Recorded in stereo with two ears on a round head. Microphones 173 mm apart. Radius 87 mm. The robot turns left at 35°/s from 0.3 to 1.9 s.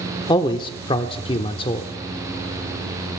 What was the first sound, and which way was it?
A man speaking, 25° left (ahead or behind).